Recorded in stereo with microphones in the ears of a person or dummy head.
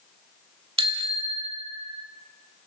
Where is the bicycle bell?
30° right (ahead or behind), 2 m; by 2.0 s 35° right (ahead or behind), 3.5 m.